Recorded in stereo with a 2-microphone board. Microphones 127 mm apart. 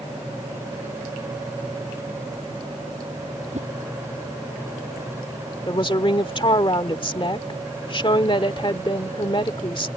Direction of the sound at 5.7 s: 40° left (ahead or behind).